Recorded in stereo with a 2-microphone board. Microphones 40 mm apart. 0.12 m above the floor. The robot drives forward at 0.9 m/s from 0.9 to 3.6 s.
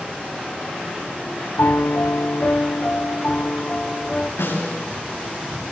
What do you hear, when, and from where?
1.6 s a piano: 80° left, 1.0 m; by 4.3 s 30° left (ahead or behind), 2.0 m
4.4 s a snare drum: 70° left (ahead or behind), 9 m